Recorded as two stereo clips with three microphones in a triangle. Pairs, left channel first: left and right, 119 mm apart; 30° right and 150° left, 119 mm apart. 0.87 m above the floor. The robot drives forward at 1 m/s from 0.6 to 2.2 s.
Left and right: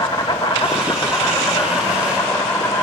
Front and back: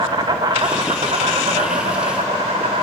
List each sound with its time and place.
0.0 s an insect: 125° left, 0.9 m; by 2.8 s 165° left, 2 m